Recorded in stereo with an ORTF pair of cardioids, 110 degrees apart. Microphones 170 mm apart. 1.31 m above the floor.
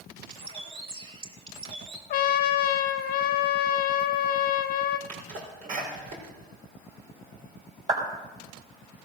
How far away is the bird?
About 2.5 m.